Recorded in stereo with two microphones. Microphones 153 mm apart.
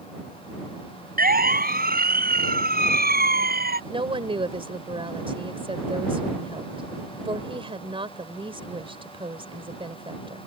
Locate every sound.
1.2 s a siren: 75° right (ahead or behind); by 3.8 s 85° right
3.9 s a woman speaking: 35° right (ahead or behind)